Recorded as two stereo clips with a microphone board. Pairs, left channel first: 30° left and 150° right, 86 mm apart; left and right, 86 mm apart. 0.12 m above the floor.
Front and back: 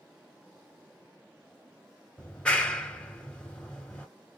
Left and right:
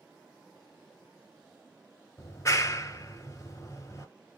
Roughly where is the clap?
Left.